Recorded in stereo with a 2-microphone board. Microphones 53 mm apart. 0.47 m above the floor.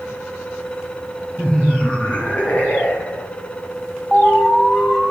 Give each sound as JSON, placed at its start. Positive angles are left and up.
{"t": 1.4, "sound": "laughter", "side_deg": 15, "distance_m": 4.0}
{"t": 4.1, "sound": "an alarm", "side_deg": 10, "distance_m": 3.5}